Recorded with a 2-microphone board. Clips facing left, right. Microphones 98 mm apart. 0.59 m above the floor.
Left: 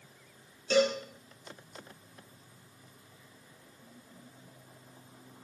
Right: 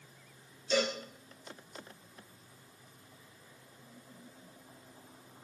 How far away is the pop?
I don't hear a pop.